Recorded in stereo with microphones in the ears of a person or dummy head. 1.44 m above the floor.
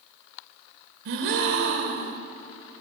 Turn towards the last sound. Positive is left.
turn(degrees=-60)  # may be behind; listen again after turning